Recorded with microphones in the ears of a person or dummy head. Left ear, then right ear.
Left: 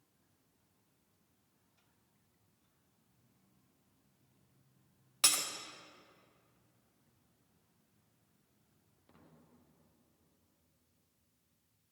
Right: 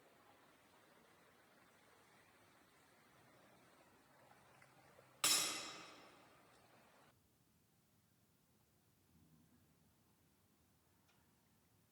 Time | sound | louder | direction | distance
5.2 | breaking glass | left 6 dB | 20° left (ahead or behind) | 0.7 m